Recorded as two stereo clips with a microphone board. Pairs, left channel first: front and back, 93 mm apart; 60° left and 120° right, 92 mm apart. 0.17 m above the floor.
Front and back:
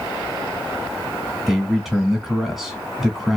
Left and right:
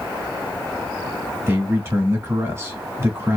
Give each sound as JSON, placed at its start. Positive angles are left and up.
{"t": 1.5, "sound": "a man speaking", "azimuth_deg": -95, "distance_m": 1.1}